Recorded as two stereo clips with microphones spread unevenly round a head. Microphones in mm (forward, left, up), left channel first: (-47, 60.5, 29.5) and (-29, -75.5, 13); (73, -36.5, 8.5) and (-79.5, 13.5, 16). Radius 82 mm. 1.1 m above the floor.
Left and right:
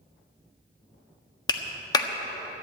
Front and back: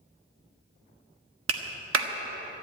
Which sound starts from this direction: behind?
A clap, at 1.5 s.